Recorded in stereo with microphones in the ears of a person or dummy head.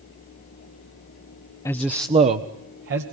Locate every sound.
1.6 s a man speaking: 20° left (ahead or behind), 0.8 m; by 3.0 s 60° right (ahead or behind), 2 m